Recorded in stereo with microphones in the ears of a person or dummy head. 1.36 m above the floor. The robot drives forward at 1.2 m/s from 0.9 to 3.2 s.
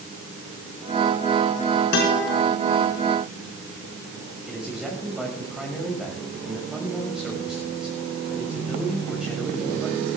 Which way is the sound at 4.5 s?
5° right (ahead or behind).